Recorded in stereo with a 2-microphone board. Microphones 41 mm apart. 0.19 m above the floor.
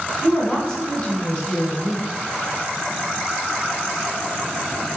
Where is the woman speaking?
20° left (ahead or behind), 1.7 m.